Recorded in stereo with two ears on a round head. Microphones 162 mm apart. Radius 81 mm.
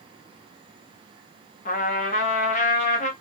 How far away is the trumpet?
About 0.7 m.